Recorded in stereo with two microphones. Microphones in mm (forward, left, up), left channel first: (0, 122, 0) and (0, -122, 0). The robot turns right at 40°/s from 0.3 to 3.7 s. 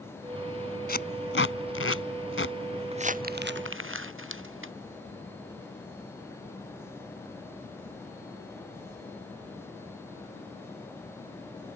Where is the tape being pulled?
40° left (ahead or behind); by 2.6 s 55° left (ahead or behind).